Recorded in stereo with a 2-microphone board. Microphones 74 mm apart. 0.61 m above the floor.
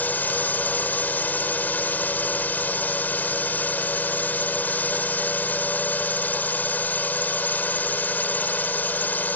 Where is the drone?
25° left (ahead or behind).